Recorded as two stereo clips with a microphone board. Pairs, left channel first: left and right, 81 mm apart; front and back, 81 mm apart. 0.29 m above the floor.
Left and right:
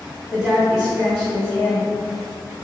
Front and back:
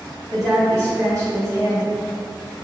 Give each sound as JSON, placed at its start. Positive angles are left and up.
{"t": 0.3, "sound": "a woman speaking", "azimuth_deg": -170, "distance_m": 1.7}